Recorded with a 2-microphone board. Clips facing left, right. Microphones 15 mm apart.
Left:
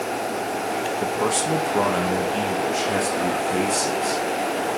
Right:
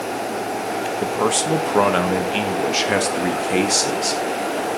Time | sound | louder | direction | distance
1.0 | a man speaking | right 4 dB | 20° right (ahead or behind) | 1.3 m